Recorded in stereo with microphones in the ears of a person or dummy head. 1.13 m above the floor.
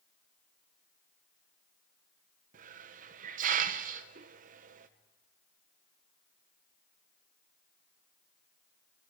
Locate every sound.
2.5 s a hiss: 45° right (ahead or behind), 0.5 m